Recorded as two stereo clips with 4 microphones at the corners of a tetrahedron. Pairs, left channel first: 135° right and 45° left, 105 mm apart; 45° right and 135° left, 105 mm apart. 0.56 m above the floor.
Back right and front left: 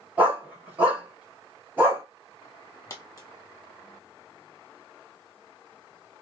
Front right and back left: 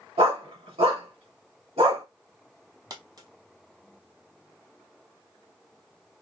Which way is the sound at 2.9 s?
175° left.